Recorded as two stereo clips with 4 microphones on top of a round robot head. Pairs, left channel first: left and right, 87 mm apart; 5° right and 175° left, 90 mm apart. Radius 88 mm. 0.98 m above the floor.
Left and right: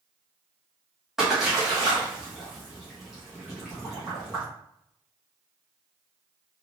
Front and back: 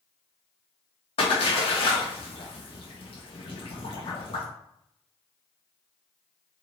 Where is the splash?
5° right, 1.2 m.